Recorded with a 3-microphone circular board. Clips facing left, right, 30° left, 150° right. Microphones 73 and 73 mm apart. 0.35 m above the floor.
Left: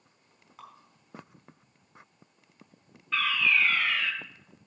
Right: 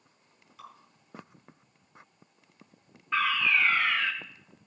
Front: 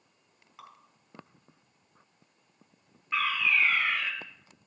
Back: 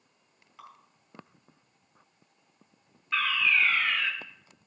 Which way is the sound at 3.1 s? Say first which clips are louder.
Right 1 dB, back 1 dB; 35° right.